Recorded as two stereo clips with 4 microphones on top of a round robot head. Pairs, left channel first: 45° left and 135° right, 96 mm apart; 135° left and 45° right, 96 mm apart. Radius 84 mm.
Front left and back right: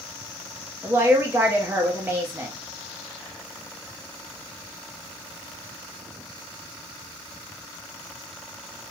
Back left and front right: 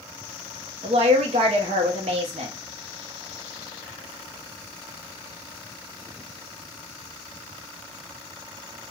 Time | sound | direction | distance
0.8 | a woman speaking | 65° right | 0.6 m